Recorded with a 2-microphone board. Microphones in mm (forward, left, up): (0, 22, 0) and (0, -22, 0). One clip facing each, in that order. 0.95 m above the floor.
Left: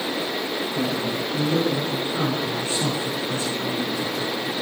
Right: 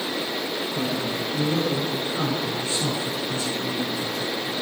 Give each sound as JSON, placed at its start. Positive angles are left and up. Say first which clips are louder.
{"t": 0.7, "sound": "a man speaking", "louder": "left 2 dB", "side_deg": 5, "distance_m": 3.5}